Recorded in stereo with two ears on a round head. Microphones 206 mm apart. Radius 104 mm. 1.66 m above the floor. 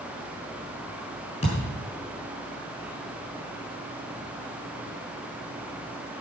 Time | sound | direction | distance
1.4 | a thud | 25° left (ahead or behind) | 6 m